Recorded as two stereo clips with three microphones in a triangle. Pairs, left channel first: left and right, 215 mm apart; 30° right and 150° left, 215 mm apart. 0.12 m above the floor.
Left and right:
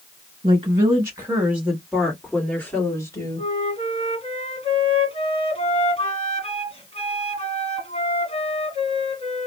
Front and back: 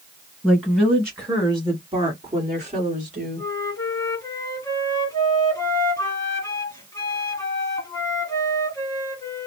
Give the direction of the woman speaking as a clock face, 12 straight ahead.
4 o'clock.